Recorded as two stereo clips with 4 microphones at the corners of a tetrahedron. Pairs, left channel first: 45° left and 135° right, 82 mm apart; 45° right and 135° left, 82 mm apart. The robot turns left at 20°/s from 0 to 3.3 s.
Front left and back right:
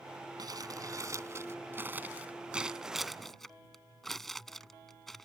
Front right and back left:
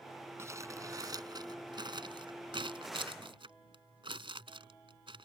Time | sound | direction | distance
0.4 | crumpling | 170° right | ?